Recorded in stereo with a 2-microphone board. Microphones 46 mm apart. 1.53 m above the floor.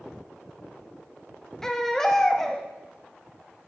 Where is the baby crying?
10° left (ahead or behind), 0.7 m.